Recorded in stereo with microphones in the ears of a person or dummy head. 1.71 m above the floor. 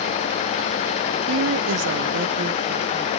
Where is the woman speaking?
75° right (ahead or behind), 1.1 m; by 3.1 s 25° right (ahead or behind), 2.0 m.